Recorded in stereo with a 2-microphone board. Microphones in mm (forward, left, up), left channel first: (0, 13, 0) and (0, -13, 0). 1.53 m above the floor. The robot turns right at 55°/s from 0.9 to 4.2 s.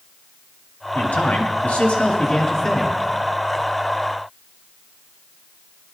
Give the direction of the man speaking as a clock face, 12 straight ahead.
10 o'clock.